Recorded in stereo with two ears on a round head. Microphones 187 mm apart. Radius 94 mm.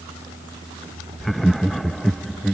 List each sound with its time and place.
1.2 s laughter: centre (ahead or behind)